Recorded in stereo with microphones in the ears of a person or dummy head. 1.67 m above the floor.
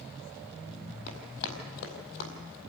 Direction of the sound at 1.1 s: 65° left (ahead or behind).